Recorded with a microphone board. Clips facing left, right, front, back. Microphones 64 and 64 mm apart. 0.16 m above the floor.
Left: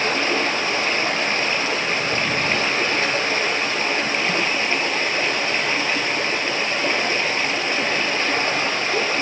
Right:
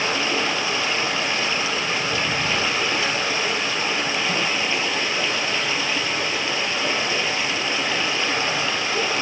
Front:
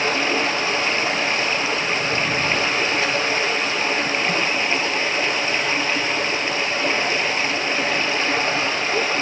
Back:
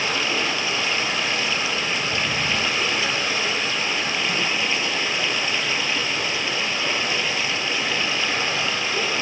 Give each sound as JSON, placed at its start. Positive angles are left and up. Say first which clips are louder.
{"t": 0.0, "sound": "running water", "louder": "left 2 dB, front 3 dB", "azimuth_deg": 50, "distance_m": 3.0}